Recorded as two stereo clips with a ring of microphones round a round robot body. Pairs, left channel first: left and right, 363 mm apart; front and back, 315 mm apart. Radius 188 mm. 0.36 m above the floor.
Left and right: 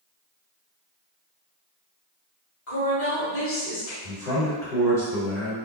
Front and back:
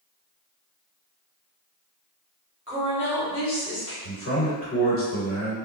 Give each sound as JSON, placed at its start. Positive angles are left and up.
{"t": 2.7, "sound": "a woman speaking", "azimuth_deg": 115, "distance_m": 1.9}
{"t": 4.0, "sound": "a man speaking", "azimuth_deg": 10, "distance_m": 1.7}